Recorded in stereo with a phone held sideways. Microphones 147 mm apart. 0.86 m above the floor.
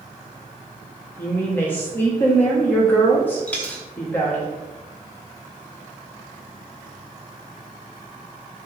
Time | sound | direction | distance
1.2 | a woman speaking | 15° left (ahead or behind) | 1.3 m
3.5 | a dropped coin | 10° left (ahead or behind) | 0.7 m